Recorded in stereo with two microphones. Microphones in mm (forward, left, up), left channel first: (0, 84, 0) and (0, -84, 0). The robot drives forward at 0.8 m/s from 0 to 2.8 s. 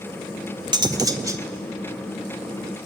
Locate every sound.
0.7 s cutlery clinking: 25° right (ahead or behind), 1.2 m; by 1.4 s 20° right (ahead or behind), 1.7 m